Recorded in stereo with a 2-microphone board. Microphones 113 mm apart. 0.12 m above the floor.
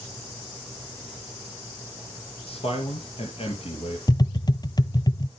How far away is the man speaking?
About 2.5 m.